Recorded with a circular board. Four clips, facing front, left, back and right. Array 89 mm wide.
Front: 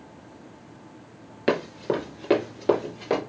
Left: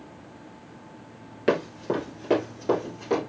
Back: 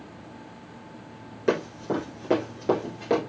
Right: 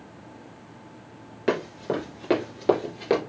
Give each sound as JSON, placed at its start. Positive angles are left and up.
{"t": 1.5, "sound": "running footsteps", "azimuth_deg": 5, "distance_m": 1.8}